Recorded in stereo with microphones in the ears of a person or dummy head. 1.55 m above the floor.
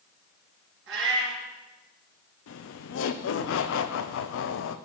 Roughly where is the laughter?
Left.